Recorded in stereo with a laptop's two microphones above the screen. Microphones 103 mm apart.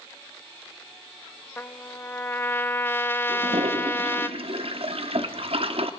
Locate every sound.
1.6 s a trumpet: 20° left (ahead or behind), 0.9 m
3.3 s a toilet flushing: 65° right (ahead or behind), 1.0 m